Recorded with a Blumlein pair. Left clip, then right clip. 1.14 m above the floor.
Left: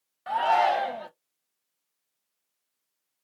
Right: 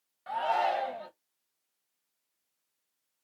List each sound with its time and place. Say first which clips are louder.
0.3 s a shout: left 6 dB; 70° left, 0.6 m